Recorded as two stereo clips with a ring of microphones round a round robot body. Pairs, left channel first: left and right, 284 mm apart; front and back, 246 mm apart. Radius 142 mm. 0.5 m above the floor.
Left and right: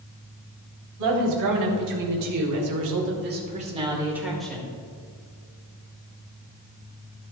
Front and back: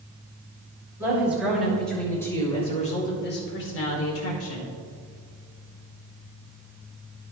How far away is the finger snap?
No finger snap in this recording.